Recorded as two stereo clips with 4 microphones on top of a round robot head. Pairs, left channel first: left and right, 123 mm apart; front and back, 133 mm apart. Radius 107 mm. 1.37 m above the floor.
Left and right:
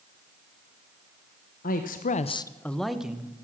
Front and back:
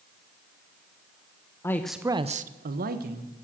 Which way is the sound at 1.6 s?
70° left.